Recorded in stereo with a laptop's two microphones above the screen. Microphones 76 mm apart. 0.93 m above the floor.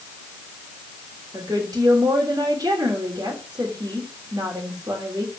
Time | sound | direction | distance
1.3 | a woman speaking | 60° right (ahead or behind) | 3 m